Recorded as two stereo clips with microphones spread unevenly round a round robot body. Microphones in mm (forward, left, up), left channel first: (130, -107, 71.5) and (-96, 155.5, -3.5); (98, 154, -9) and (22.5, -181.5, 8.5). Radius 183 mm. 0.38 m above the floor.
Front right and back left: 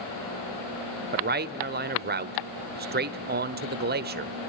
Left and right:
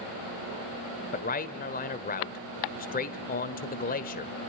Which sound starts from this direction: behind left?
A man speaking, at 1.1 s.